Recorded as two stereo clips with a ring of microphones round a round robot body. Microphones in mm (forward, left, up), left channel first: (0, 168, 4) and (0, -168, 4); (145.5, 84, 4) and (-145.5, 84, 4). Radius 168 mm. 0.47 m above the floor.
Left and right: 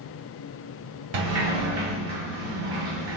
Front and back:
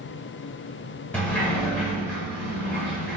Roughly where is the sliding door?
Right.